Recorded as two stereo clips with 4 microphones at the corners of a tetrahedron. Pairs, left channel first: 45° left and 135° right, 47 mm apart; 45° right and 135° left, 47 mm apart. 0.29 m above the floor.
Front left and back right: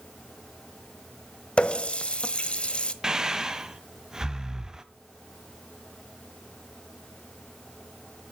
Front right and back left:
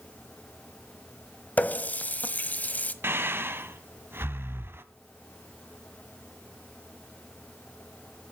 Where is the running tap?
15° right, 0.9 m.